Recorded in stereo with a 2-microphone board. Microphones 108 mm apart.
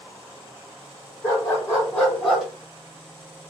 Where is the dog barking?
25° left (ahead or behind), 3 m; by 2.5 s centre (ahead or behind), 1.9 m.